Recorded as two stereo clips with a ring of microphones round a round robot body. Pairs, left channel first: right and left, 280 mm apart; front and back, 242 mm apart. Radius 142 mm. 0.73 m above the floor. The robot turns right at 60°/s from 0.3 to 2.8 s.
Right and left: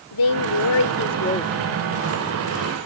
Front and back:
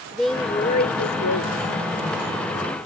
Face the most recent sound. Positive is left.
turn(degrees=60)